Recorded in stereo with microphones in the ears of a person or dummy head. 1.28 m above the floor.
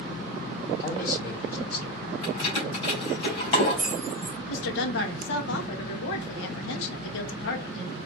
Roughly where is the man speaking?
Left.